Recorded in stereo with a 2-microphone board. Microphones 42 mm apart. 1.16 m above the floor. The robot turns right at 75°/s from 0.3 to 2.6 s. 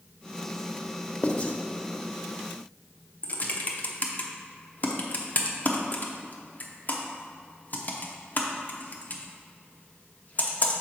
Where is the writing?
25° left (ahead or behind), 0.7 m.